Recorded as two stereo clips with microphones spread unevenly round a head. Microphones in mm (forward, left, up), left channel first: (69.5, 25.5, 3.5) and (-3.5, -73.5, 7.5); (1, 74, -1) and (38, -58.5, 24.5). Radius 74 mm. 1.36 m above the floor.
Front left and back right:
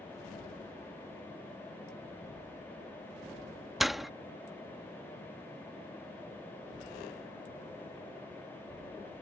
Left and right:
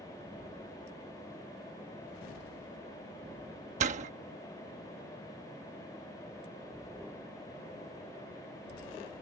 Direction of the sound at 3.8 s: 40° right.